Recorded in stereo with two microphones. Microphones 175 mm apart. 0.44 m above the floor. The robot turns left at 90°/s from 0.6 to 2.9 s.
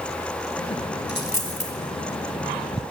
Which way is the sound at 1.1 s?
80° left.